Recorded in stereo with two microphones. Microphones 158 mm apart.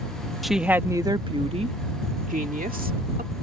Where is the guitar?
No guitar in this recording.